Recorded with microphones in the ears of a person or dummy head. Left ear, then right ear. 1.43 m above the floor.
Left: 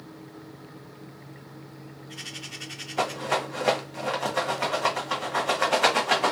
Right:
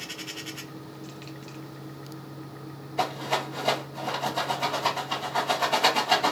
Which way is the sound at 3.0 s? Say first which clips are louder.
Left 1 dB; 45° left (ahead or behind).